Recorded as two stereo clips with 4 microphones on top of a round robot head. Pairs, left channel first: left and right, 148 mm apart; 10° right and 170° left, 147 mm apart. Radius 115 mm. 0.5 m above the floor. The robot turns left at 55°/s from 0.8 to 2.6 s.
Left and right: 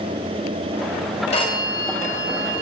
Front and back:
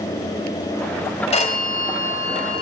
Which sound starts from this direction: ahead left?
A phone ringing, at 1.3 s.